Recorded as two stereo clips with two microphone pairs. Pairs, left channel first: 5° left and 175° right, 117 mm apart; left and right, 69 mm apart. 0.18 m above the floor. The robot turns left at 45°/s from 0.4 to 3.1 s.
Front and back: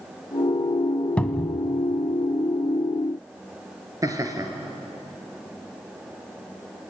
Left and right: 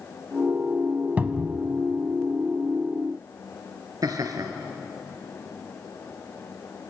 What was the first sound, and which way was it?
A cupboard door, 55° right.